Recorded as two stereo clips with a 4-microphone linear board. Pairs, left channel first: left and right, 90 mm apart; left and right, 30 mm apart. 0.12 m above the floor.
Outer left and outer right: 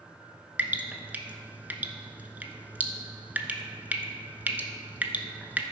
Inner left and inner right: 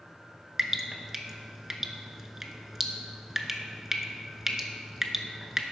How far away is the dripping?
About 0.7 m.